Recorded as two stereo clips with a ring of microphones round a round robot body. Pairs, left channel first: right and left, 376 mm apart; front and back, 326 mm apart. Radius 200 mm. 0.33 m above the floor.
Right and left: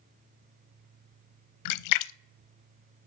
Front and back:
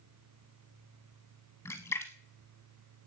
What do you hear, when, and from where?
1.6 s a splash: 85° right, 0.5 m